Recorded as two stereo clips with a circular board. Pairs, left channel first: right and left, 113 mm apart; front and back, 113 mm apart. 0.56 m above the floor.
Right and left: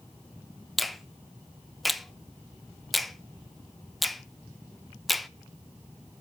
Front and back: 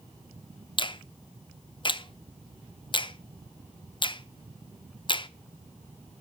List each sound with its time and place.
0.8 s a finger snap: straight ahead, 0.6 m